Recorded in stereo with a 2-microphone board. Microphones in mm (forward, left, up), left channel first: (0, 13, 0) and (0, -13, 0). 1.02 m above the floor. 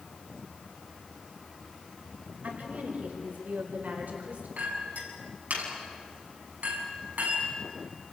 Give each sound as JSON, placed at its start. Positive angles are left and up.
{"t": 2.4, "sound": "a woman speaking", "side_deg": -85, "distance_m": 4.5}
{"t": 4.6, "sound": "a clink", "side_deg": -70, "distance_m": 7.0}